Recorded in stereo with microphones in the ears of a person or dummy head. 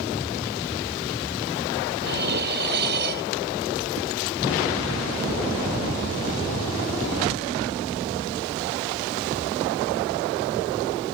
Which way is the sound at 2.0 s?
60° right (ahead or behind).